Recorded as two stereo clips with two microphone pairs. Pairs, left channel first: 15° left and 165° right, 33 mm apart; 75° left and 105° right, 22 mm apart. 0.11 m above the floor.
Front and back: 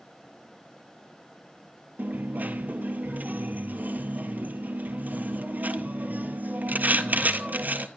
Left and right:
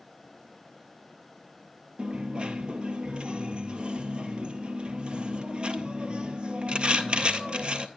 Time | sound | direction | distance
2.0 | a dropped coin | 145° right | 0.6 m